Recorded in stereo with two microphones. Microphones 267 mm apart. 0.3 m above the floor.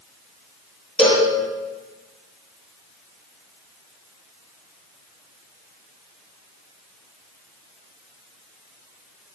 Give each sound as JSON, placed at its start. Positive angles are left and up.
{"t": 1.0, "sound": "a cowbell", "side_deg": 5, "distance_m": 7.5}